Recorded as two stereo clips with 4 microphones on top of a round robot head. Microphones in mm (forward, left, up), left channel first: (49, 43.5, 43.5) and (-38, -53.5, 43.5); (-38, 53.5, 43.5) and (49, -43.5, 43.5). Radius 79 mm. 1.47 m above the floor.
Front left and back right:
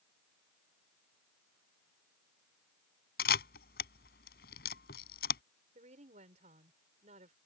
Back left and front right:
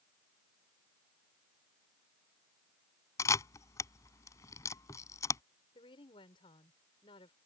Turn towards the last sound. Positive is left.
turn(degrees=-175)